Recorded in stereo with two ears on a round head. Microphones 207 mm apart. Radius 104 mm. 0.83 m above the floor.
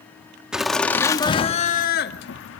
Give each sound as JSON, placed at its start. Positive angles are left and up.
{"t": 0.5, "sound": "laughter", "side_deg": -5, "distance_m": 1.6}